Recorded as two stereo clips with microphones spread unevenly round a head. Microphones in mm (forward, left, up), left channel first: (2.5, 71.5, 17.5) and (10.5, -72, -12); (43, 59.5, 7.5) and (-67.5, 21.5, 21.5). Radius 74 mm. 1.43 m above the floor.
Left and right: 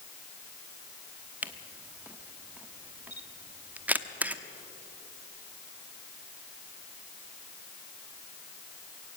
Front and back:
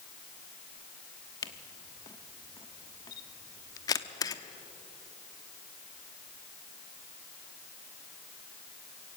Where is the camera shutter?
5° left, 0.9 m.